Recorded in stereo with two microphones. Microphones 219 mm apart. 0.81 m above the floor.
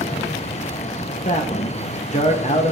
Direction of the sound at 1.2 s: 35° left (ahead or behind).